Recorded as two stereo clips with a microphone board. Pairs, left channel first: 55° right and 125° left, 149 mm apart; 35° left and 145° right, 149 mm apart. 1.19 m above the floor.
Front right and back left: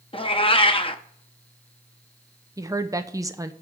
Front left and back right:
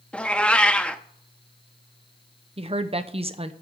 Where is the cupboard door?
No cupboard door in this recording.